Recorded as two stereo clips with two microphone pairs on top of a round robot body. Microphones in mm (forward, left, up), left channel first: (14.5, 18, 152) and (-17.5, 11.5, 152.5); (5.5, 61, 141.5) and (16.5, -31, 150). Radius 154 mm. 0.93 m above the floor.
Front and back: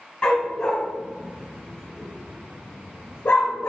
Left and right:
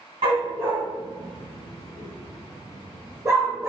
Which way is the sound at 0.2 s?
50° right.